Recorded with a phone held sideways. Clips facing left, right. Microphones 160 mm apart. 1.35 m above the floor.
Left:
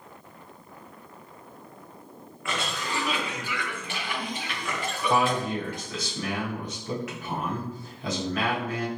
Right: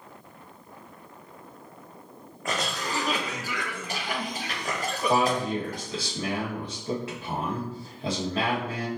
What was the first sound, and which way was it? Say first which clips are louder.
A cough: right 1 dB; 40° right (ahead or behind).